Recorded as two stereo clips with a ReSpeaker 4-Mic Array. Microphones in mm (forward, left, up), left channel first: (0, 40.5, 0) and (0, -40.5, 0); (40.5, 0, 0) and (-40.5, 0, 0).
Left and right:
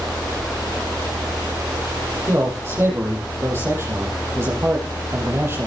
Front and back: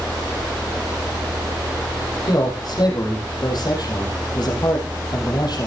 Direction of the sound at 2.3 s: 30° right.